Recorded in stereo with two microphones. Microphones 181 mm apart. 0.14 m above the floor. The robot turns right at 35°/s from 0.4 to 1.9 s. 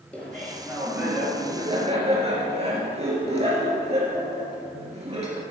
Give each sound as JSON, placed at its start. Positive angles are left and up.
{"t": 0.1, "sound": "laughter", "azimuth_deg": 170, "distance_m": 3.0}